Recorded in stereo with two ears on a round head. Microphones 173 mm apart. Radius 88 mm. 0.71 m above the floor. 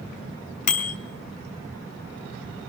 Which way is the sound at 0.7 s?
40° left (ahead or behind).